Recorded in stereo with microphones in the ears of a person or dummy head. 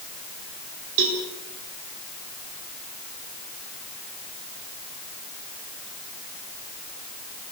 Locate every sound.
1.0 s a cowbell: 65° right (ahead or behind), 4.5 m